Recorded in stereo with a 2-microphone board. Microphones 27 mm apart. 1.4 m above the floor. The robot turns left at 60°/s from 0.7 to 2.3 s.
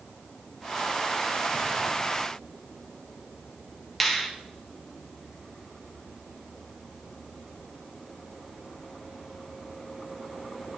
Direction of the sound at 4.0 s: Centre (ahead or behind).